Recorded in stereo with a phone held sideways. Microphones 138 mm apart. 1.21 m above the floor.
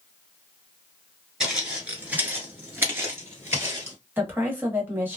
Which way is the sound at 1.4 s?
5° right (ahead or behind).